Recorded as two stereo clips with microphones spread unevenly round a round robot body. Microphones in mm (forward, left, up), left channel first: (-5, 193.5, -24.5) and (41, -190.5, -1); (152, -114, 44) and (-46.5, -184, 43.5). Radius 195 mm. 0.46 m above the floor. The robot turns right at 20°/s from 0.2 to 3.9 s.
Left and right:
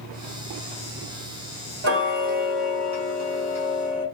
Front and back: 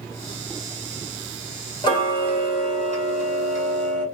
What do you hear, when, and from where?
1.8 s ticking: 35° right, 1.3 m; by 4.0 s 5° left, 1.3 m